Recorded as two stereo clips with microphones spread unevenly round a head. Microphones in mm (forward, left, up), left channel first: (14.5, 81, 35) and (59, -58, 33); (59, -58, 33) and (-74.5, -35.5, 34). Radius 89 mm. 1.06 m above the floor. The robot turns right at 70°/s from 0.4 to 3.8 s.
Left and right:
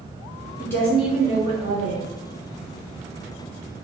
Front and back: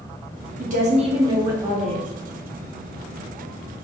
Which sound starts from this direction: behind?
A woman speaking, at 0.6 s.